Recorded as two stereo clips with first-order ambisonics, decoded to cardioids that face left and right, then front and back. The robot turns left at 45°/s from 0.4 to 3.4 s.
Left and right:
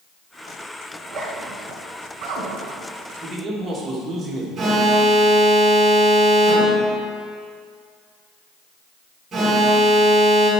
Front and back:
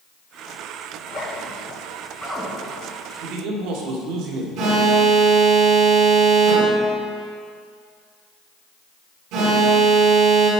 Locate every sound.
0.9 s a zipper: 30° right, 1.9 m; by 2.9 s 120° right, 1.9 m
3.2 s a man speaking: 160° right, 1.4 m; by 4.5 s 165° right, 1.4 m
4.6 s an alarm: 160° right, 1.5 m